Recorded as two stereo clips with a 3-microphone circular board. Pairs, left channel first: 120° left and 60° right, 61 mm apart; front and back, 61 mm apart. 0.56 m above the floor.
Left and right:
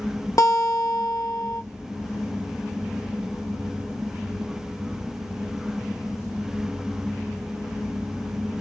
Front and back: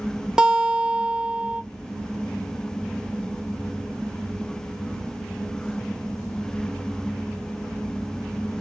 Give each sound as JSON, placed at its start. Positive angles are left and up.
{"t": 0.4, "sound": "a guitar", "azimuth_deg": 105, "distance_m": 1.0}